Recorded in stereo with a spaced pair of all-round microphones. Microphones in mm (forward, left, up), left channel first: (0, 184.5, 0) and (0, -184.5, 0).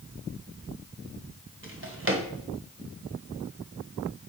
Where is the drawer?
35° right (ahead or behind), 1.4 m.